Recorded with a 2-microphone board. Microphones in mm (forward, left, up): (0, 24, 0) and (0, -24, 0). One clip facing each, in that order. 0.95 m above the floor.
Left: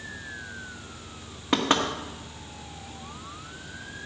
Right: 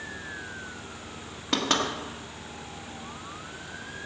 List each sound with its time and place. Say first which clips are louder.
1.5 s knocking: left 3 dB; 20° left (ahead or behind), 1.7 m